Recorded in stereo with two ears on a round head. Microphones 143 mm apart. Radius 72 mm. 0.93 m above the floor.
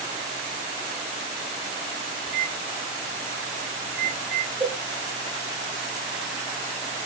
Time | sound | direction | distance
2.2 | a microwave | 15° right (ahead or behind) | 3.5 m
4.6 | a cowbell | 15° right (ahead or behind) | 0.6 m